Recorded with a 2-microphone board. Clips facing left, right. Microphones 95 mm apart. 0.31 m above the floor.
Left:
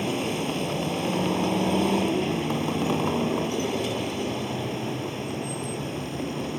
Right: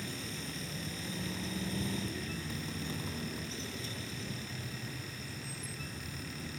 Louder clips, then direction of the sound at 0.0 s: Left 16 dB; 75° left (ahead or behind).